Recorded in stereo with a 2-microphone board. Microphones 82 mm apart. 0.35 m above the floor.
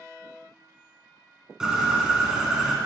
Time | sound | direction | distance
1.6 | a bird | 10° right (ahead or behind) | 0.8 m